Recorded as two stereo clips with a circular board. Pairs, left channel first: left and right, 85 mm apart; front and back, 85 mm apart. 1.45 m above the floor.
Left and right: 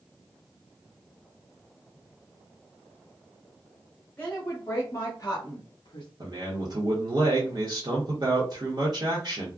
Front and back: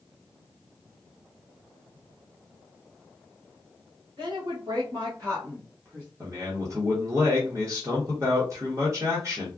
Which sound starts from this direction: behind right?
A man speaking, at 6.2 s.